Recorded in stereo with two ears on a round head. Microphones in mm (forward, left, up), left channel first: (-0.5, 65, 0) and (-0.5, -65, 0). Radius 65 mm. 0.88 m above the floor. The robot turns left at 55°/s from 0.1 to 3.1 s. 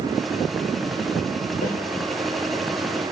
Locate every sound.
1.6 s a snare drum: 55° left (ahead or behind), 4.5 m; by 1.8 s 65° left (ahead or behind), 4.5 m